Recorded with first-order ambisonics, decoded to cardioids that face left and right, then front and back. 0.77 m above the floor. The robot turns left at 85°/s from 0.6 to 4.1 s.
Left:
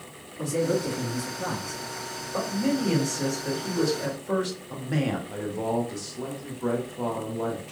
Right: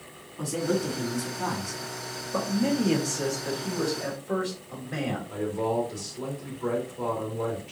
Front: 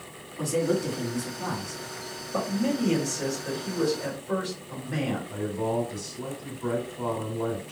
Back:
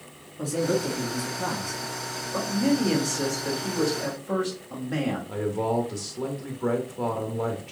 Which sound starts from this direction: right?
A man speaking, at 2.3 s.